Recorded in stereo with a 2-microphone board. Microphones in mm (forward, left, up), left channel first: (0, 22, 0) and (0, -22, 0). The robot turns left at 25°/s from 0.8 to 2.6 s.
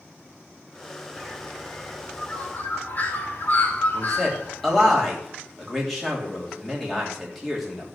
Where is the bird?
5° left (ahead or behind), 2 m; by 4.9 s 40° left (ahead or behind), 2 m.